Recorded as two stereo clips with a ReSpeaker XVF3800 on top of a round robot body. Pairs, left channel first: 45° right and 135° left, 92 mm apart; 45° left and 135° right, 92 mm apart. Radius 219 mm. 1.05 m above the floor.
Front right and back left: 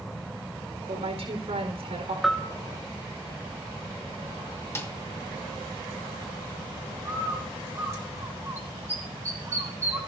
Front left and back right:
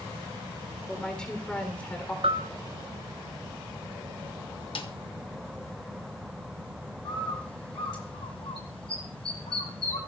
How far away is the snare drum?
About 1.7 m.